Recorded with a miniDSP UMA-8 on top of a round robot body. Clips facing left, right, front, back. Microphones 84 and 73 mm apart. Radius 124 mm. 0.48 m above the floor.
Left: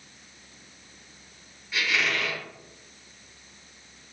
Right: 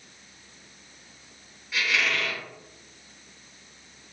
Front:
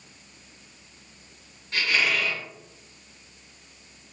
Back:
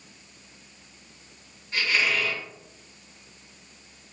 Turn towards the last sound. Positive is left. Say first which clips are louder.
# even, even
turn(degrees=0)